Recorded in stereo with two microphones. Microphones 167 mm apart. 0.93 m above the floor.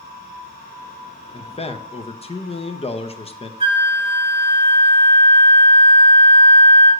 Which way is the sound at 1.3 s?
35° left (ahead or behind).